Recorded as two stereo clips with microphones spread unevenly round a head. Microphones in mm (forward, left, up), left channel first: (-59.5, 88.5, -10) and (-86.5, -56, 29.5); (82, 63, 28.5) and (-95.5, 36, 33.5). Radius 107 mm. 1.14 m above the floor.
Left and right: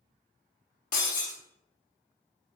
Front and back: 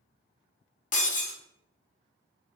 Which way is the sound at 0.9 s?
40° left.